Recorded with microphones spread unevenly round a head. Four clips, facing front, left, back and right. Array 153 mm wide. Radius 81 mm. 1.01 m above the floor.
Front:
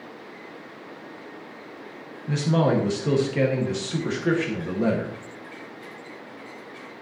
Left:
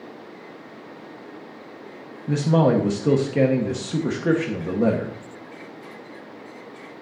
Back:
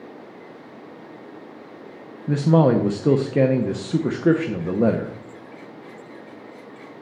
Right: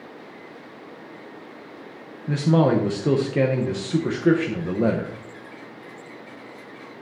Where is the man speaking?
170° right, 0.9 m.